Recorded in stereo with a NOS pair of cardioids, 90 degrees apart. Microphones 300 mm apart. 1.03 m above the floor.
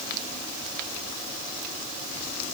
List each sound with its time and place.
Only background noise.